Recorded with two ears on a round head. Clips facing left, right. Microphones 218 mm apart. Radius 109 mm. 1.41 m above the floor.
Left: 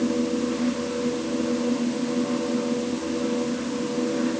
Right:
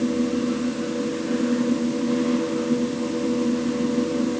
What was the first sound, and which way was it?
Only background noise.